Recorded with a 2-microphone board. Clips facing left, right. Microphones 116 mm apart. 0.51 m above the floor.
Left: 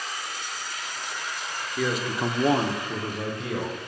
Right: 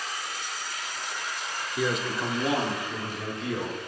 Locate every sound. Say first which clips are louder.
1.8 s a man speaking: left 1 dB; 10° right (ahead or behind), 1.0 m; by 3.8 s 50° left (ahead or behind), 2.0 m